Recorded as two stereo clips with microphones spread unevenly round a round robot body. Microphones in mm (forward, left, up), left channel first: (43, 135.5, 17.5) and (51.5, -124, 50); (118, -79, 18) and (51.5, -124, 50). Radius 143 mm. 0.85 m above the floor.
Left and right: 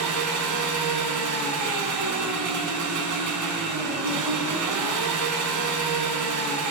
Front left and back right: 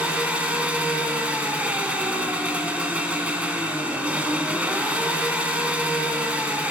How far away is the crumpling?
I don't hear crumpling.